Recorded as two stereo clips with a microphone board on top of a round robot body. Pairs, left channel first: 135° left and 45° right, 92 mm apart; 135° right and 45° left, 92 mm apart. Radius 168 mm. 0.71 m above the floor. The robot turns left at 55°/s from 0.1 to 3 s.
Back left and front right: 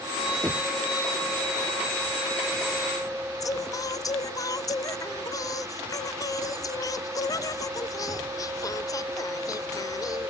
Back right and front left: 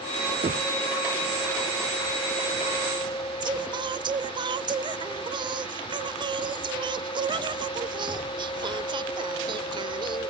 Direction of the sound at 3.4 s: 85° left.